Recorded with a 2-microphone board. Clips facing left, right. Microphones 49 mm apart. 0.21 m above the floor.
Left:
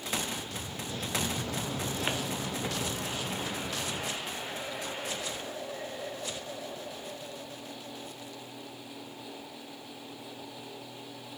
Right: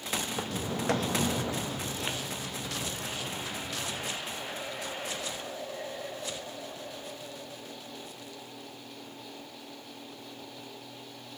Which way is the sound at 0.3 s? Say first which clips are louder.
Right 4 dB; 80° right.